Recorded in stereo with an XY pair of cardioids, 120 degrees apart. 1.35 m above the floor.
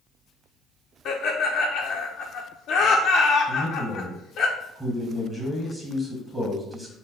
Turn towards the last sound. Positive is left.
turn(degrees=-15)